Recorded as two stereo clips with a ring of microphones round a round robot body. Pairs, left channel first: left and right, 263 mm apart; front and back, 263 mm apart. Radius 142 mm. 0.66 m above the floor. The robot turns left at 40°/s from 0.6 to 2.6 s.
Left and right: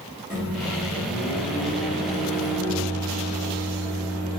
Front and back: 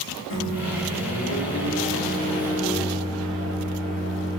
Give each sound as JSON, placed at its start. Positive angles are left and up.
{"t": 0.3, "sound": "a microwave", "azimuth_deg": -5, "distance_m": 1.6}